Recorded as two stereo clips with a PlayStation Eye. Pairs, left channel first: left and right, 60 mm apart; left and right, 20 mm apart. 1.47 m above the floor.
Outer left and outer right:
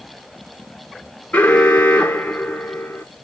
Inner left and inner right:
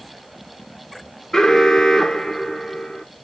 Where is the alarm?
25° left (ahead or behind), 1.9 m.